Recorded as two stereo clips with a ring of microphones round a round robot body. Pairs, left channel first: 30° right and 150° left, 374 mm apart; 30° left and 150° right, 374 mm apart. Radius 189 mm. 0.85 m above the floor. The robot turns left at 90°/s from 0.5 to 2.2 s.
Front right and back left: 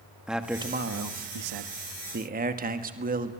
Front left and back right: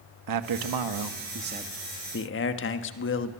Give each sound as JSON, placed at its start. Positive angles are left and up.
{"t": 0.3, "sound": "a man speaking", "azimuth_deg": -125, "distance_m": 1.4}